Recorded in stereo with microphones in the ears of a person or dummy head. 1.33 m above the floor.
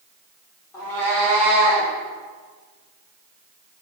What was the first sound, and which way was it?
A cat meowing, 15° left (ahead or behind).